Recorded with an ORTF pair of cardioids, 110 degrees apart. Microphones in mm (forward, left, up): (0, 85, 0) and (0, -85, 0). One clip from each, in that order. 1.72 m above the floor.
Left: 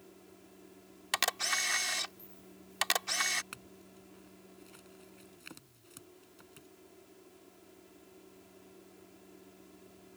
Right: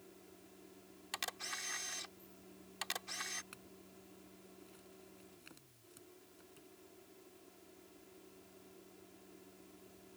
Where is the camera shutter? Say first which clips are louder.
Left 12 dB; 60° left.